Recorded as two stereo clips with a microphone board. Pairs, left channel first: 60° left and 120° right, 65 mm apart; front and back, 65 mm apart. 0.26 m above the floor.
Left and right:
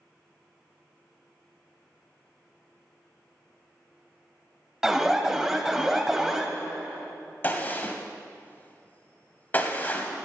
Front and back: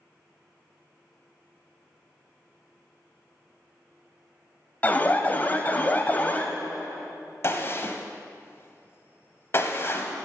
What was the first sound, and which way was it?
An alarm, 40° right.